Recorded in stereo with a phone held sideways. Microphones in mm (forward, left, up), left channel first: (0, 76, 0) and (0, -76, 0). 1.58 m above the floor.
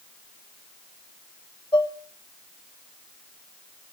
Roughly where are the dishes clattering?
Left.